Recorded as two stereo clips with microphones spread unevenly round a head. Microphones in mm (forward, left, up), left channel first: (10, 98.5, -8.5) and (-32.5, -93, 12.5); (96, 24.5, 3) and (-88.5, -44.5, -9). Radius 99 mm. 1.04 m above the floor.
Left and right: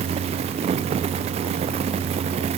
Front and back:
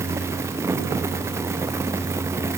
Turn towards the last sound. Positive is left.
No sound to turn to.